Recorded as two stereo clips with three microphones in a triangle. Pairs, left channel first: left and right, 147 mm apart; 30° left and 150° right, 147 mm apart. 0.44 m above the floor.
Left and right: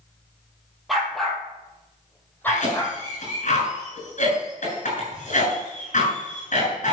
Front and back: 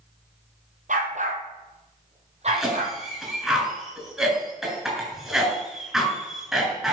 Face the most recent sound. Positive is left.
turn(degrees=125)